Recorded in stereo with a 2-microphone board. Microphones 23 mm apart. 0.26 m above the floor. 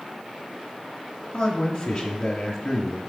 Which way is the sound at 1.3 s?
15° left (ahead or behind).